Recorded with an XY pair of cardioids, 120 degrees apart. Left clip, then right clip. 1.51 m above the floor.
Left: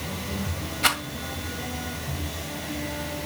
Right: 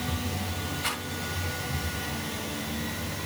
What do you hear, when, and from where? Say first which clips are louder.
0.8 s a rattle: left 10 dB; 65° left, 2 m